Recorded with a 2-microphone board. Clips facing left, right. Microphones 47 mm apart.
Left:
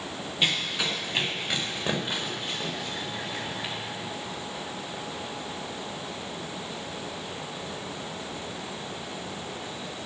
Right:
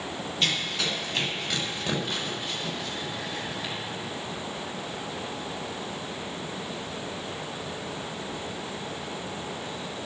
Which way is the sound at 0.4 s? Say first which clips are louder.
Left 1 dB; 15° left (ahead or behind).